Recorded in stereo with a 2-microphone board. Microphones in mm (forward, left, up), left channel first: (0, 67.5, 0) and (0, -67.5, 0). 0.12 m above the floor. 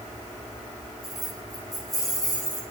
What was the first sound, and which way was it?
Keys jangling, 30° left (ahead or behind).